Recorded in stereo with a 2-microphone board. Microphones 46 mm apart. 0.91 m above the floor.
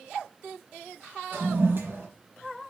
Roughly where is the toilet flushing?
Right.